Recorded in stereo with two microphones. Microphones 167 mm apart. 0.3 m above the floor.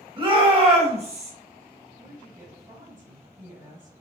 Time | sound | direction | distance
0.2 | a shout | 30° right (ahead or behind) | 1.1 m
2.0 | a woman speaking | 25° right (ahead or behind) | 1.8 m